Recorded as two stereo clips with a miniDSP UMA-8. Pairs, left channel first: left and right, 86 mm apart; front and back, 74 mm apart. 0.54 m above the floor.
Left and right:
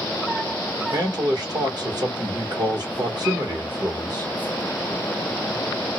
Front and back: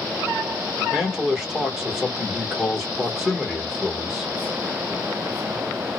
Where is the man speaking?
95° right, 1.6 m.